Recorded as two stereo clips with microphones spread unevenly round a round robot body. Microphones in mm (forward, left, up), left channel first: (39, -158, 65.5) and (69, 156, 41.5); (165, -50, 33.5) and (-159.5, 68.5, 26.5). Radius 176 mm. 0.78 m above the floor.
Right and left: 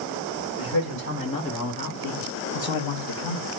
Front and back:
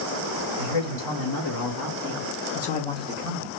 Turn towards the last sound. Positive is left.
turn(degrees=-140)